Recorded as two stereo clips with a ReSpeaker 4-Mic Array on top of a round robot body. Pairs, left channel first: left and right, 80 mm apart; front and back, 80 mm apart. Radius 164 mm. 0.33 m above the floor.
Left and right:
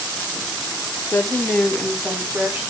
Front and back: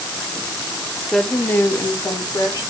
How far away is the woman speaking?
About 0.9 m.